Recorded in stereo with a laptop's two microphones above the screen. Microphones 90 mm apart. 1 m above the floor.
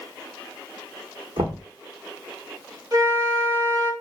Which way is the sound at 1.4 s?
75° right (ahead or behind).